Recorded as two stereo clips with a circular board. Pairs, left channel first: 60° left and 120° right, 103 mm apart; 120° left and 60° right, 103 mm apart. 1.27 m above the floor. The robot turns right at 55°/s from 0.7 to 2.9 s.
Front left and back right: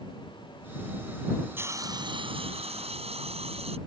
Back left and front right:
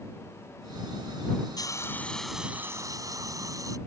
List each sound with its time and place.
1.6 s a hiss: 170° left; by 3.8 s 115° right